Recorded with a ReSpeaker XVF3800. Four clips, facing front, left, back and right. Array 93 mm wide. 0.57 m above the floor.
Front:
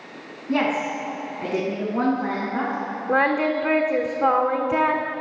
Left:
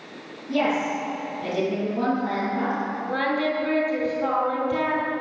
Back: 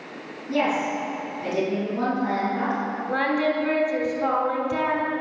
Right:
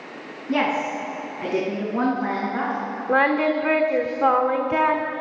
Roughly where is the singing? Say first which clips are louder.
Right 6 dB, front 4 dB; ahead right.